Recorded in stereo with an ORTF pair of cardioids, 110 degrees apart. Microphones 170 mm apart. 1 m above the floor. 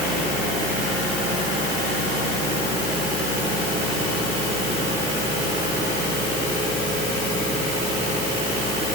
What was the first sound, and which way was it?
Only background noise.